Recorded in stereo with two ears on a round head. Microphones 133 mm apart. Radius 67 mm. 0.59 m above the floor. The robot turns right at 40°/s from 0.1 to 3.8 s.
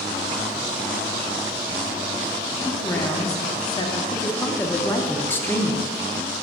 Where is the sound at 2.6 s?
30° left, 0.9 m; by 4.0 s 80° left, 0.9 m.